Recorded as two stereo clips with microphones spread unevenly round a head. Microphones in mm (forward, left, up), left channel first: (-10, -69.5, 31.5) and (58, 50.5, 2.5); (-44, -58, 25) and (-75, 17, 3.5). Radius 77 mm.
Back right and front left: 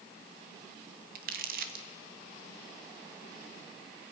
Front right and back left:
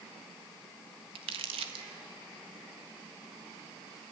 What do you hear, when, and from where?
1.1 s crumpling: 95° left, 1.5 m